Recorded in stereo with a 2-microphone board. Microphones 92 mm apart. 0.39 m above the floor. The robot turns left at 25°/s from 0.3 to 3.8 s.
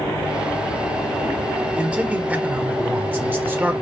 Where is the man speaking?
15° right (ahead or behind), 1.0 m; by 3.7 s 20° right (ahead or behind), 1.0 m.